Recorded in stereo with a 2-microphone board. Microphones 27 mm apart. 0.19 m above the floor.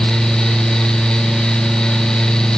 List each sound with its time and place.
Only background noise.